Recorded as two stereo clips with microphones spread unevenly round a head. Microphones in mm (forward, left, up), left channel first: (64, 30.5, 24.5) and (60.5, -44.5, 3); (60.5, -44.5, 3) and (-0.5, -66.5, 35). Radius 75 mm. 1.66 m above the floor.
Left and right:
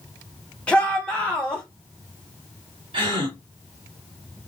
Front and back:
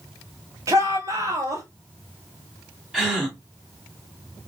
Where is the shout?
160° left, 1.2 m.